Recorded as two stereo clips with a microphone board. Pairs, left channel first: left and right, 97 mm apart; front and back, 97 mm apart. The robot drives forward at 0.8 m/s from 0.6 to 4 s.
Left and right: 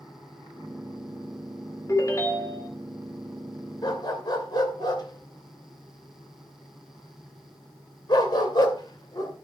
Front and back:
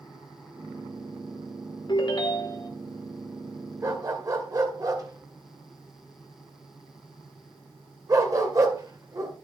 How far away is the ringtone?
About 2.5 m.